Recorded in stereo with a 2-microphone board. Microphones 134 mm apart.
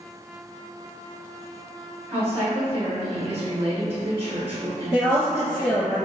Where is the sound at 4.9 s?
Centre (ahead or behind), 1.3 m.